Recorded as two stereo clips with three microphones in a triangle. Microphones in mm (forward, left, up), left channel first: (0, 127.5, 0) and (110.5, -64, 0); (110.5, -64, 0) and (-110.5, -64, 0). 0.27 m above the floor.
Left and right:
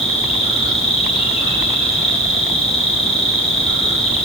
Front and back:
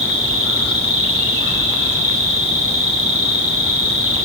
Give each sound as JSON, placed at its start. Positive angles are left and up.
{"t": 0.0, "sound": "an insect", "azimuth_deg": -175, "distance_m": 7.0}